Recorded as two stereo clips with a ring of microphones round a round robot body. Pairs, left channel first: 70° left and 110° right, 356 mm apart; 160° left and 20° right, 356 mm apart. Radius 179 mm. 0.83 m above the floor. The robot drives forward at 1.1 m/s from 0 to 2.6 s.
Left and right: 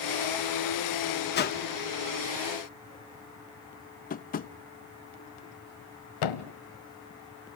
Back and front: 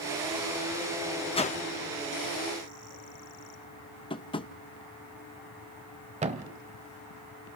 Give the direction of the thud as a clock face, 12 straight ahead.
10 o'clock.